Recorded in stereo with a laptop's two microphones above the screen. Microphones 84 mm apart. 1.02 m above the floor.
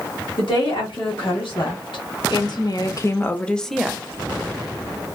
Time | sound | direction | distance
0.4 | a woman speaking | 75° left (ahead or behind) | 1.6 m